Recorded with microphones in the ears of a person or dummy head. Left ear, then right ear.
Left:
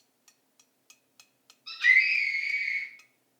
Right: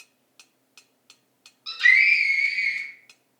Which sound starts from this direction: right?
A scream, at 1.7 s.